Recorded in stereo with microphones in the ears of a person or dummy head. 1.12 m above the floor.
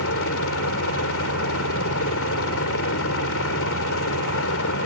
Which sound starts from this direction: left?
A helicopter, at 0.0 s.